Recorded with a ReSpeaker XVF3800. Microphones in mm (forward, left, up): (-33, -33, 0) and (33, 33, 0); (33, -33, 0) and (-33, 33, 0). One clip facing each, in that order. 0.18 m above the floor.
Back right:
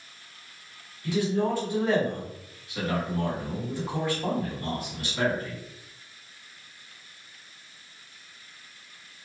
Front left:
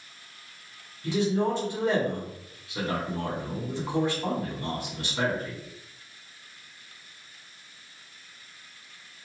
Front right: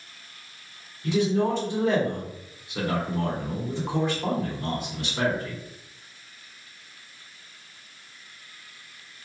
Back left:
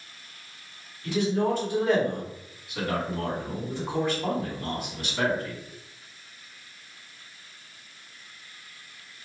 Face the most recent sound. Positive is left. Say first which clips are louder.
# even, front right 2 dB
turn(degrees=0)